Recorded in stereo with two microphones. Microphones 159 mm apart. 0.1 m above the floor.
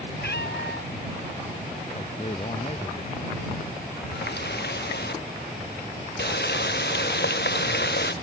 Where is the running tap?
85° left.